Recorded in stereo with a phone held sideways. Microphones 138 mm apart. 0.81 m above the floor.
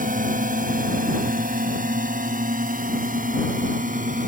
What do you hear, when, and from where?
0.0 s a drone: 75° right (ahead or behind); by 4.3 s 70° right (ahead or behind)